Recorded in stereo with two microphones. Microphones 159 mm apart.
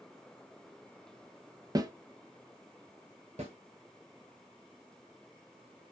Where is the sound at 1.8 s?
25° right (ahead or behind), 0.5 m.